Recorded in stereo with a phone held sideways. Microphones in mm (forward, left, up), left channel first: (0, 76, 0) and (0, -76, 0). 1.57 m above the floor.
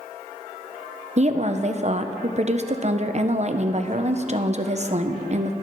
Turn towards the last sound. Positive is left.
turn(degrees=-50)  # may be behind; listen again after turning